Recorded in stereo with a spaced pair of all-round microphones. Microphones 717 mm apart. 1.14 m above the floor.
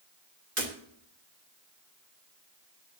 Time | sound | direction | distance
0.6 | breaking glass | 75° right (ahead or behind) | 2.5 m